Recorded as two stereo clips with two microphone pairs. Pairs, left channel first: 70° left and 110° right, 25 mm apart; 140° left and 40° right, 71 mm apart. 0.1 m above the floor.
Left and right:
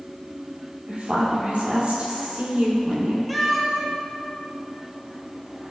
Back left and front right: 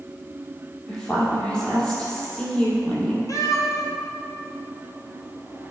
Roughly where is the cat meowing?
Behind.